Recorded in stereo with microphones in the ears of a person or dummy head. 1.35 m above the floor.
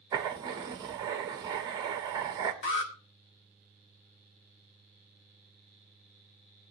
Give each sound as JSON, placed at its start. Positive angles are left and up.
{"t": 0.1, "sound": "writing", "side_deg": -10, "distance_m": 0.7}
{"t": 2.6, "sound": "an alarm", "side_deg": 60, "distance_m": 2.0}